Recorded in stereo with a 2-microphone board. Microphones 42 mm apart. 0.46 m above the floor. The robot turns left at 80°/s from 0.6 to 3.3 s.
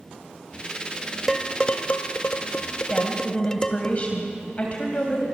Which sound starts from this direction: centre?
Dishes clattering, at 1.3 s.